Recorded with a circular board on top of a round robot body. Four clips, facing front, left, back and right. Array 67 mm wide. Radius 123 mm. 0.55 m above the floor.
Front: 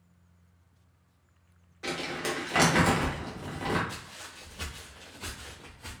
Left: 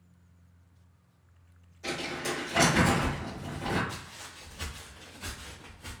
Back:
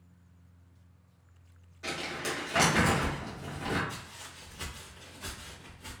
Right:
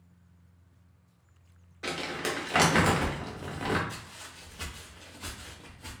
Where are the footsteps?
25° left, 1.0 m; by 5.9 s 40° right, 1.5 m.